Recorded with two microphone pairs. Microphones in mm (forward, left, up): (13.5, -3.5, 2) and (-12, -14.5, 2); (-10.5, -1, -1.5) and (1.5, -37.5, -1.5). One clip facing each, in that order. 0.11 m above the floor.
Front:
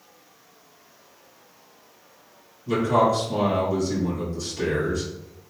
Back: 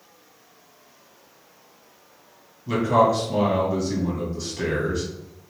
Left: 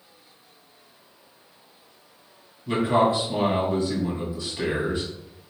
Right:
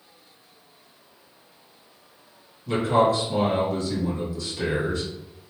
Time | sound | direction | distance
2.7 | a man speaking | 160° left | 1.7 m